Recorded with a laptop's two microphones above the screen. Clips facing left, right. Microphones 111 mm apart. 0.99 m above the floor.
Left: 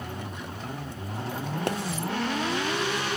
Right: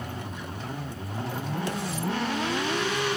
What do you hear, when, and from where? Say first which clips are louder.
1.7 s a pop: left 6 dB; 60° left (ahead or behind), 0.6 m